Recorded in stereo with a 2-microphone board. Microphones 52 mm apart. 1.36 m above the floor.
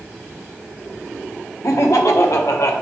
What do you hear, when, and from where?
1.6 s laughter: 70° left (ahead or behind), 1.3 m